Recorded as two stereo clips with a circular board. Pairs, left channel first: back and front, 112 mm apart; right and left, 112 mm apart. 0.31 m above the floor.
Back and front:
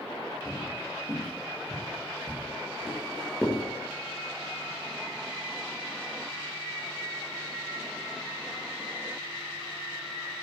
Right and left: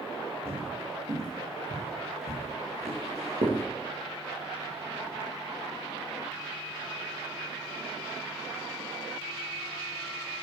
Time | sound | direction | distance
0.5 | footsteps | 80° left | 7 m